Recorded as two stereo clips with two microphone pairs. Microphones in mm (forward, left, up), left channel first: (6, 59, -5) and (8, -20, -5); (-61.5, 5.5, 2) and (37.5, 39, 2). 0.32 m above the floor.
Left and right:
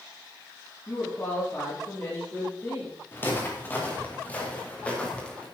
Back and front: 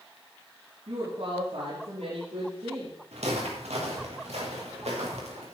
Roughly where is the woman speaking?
Ahead left.